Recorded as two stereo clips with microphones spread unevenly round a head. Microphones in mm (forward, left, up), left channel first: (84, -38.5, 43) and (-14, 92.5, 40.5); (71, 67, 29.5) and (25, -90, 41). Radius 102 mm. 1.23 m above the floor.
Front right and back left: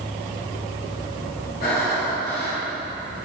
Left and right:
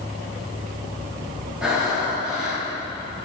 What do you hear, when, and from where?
1.6 s breathing: 20° right, 2 m